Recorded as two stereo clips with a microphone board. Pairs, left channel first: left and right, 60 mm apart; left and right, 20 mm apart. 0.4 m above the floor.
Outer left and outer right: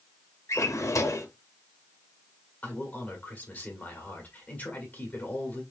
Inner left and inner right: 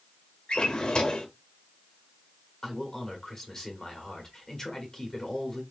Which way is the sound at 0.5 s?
55° left (ahead or behind).